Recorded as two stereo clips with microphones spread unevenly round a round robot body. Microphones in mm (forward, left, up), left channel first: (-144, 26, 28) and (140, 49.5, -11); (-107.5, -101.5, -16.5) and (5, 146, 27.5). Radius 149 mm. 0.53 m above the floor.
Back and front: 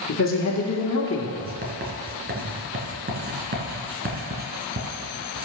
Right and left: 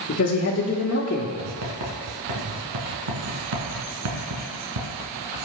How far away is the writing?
About 2 m.